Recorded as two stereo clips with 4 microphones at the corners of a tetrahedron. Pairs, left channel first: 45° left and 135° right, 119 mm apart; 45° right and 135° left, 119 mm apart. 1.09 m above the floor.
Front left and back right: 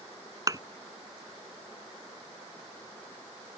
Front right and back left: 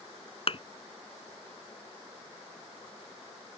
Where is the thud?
80° right.